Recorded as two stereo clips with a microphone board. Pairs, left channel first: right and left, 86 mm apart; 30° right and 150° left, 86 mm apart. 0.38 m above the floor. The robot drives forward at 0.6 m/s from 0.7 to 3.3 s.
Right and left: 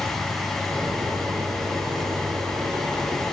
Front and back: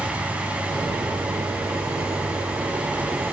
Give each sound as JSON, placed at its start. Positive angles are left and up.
{"t": 0.0, "sound": "an insect", "azimuth_deg": -40, "distance_m": 1.8}